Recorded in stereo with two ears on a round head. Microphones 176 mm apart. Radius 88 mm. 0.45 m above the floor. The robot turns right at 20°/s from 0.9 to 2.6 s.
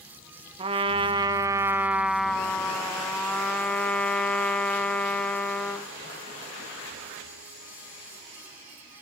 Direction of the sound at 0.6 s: 30° right.